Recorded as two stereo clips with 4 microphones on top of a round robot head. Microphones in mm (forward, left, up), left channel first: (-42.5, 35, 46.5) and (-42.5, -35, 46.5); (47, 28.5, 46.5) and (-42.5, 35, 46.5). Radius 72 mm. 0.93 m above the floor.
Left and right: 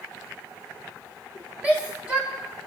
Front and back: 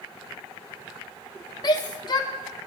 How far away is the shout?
About 0.7 m.